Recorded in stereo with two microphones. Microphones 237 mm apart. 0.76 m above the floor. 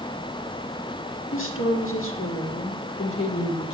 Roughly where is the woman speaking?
Left.